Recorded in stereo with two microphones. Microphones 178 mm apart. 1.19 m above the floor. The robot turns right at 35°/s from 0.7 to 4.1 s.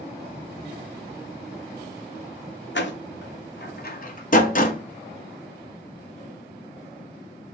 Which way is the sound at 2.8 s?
75° left (ahead or behind).